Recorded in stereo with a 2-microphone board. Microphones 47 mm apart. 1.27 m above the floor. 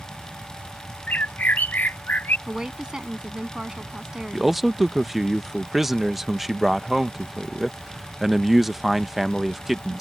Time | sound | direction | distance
1.1 | a bird | 40° left (ahead or behind) | ?
2.5 | a woman speaking | 15° right (ahead or behind) | ?
4.3 | a man speaking | 5° right (ahead or behind) | ?